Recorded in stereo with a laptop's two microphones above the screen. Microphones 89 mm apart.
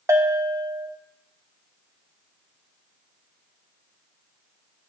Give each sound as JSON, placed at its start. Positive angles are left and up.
{"t": 0.1, "sound": "a bell", "side_deg": -30, "distance_m": 0.6}